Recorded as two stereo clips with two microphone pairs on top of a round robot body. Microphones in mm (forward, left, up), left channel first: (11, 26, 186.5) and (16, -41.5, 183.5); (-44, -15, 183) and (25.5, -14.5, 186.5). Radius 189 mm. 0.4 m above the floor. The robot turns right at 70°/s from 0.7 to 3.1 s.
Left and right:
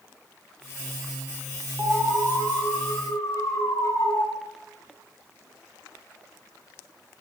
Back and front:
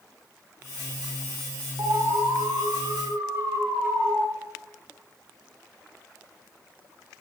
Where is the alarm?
35° right, 6.5 m; by 4.2 s 55° left, 6.5 m.